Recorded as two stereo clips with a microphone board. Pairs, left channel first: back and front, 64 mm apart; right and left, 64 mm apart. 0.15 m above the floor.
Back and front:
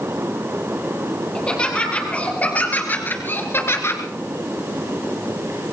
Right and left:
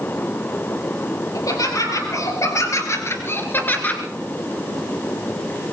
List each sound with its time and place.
1.4 s laughter: 105° right, 4.5 m; by 4.0 s 150° right, 2 m